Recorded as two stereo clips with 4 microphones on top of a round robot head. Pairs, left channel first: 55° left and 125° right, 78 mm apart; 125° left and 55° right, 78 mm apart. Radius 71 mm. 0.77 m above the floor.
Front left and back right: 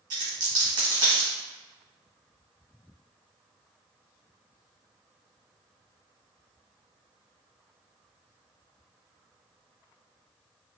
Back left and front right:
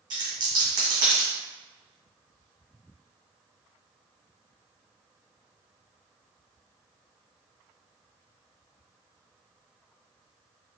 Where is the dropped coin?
90° right, 1.7 m.